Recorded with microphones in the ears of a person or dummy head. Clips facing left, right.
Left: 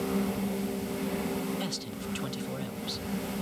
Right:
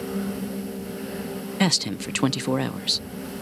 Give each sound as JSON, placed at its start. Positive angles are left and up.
{"t": 1.6, "sound": "a man speaking", "side_deg": -75}